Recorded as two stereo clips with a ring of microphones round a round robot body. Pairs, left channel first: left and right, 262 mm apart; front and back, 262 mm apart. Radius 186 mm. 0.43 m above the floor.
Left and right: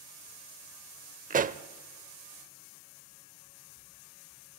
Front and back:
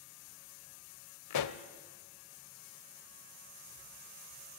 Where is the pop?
25° right, 0.8 m.